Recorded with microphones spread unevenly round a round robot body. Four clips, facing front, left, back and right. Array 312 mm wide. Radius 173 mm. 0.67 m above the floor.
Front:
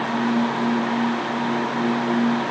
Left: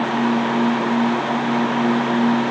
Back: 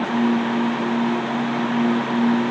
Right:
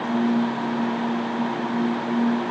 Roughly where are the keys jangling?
I don't hear keys jangling.